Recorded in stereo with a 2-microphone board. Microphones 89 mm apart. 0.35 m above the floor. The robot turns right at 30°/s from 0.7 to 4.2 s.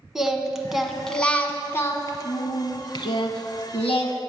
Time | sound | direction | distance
0.1 | singing | 5° right | 0.8 m